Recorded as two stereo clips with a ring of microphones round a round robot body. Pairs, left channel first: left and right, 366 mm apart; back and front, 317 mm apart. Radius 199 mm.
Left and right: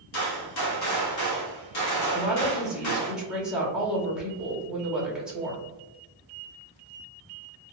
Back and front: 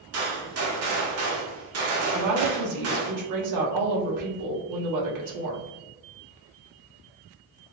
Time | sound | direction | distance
0.1 | a gunshot | 45° left | 1.2 m
2.1 | a woman speaking | straight ahead | 1.2 m